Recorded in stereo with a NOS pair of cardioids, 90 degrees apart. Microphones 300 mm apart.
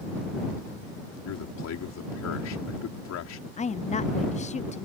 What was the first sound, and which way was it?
A man speaking, 60° left.